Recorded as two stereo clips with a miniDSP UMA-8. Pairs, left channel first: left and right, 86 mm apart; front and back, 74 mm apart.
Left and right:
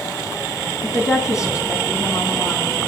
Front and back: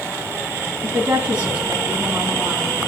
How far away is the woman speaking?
About 2.0 m.